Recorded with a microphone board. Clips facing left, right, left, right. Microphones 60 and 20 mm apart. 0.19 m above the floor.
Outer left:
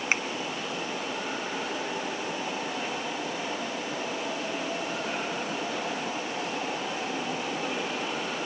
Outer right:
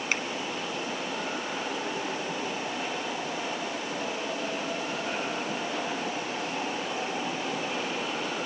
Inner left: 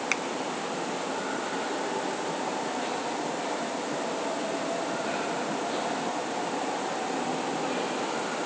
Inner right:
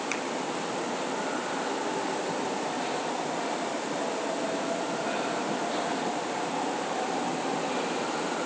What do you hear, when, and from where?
0.1 s a finger snap: 25° left (ahead or behind), 1.1 m